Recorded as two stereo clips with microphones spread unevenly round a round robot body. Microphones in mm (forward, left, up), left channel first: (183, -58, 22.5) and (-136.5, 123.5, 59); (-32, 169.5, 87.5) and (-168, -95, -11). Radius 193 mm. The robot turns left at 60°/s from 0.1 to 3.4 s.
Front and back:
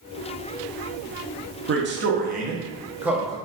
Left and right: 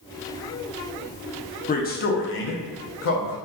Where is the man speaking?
140° left, 0.6 m; by 3.4 s 40° left, 0.6 m.